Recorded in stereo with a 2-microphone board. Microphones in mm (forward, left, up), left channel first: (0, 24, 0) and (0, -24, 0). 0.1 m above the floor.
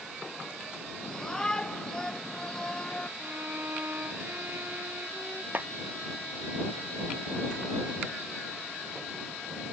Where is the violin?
50° right (ahead or behind).